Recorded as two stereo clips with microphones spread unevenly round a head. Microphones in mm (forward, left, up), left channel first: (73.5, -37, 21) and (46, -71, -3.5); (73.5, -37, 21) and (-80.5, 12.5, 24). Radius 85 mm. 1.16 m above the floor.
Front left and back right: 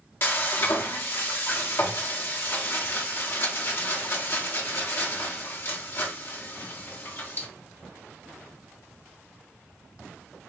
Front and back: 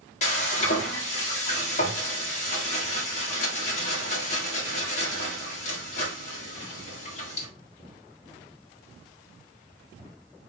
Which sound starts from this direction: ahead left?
Frying, at 0.2 s.